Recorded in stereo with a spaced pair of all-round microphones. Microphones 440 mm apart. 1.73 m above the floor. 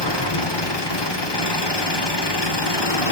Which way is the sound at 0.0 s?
65° left (ahead or behind).